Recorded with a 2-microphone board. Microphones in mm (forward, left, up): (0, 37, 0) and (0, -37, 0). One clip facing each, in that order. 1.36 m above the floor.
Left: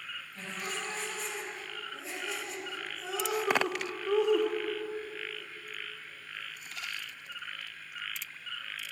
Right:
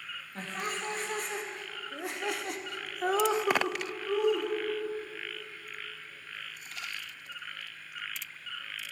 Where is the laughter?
50° right (ahead or behind), 3 m; by 4.5 s 25° left (ahead or behind), 1.2 m.